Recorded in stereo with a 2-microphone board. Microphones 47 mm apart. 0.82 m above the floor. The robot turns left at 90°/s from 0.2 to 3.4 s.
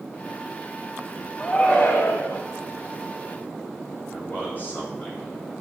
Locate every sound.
1.4 s a shout: 175° left, 3.5 m; by 2.5 s 75° left, 3.5 m
4.1 s a man speaking: 35° left (ahead or behind), 4.5 m